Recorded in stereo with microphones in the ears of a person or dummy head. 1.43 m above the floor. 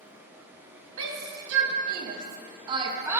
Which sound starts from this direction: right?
A shout, at 1.0 s.